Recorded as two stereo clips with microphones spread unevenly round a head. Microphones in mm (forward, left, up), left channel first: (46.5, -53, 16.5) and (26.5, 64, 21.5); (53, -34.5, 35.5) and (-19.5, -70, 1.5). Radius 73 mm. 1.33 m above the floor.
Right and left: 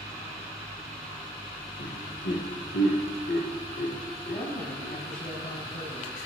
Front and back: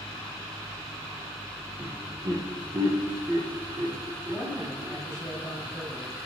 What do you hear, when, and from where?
1.8 s laughter: 100° right, 1.3 m
4.2 s a woman speaking: 60° right, 5 m